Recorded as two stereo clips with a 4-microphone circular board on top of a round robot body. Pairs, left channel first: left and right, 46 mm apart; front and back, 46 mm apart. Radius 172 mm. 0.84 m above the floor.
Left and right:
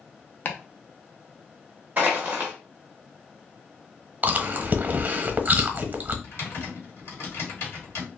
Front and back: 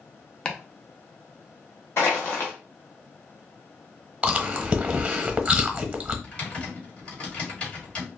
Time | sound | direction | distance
0.5 | chopping | 65° left | 0.9 m
2.0 | crushing | 40° right | 0.6 m
4.2 | chewing | 125° right | 1.0 m
6.2 | typing on a keyboard | 65° left | 1.7 m